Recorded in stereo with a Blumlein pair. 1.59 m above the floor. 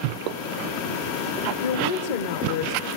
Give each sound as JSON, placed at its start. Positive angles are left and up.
{"t": 1.6, "sound": "a woman speaking", "azimuth_deg": 50, "distance_m": 1.3}